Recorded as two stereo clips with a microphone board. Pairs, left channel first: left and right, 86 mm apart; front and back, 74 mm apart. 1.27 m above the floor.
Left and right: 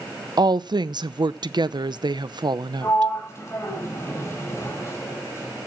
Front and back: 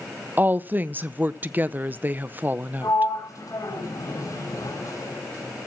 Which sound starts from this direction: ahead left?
A sliding door, at 2.8 s.